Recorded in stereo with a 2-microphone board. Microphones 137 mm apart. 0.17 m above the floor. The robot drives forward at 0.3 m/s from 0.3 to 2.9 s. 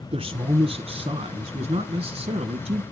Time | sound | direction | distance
0.1 | a man speaking | 40° right (ahead or behind) | 1.4 m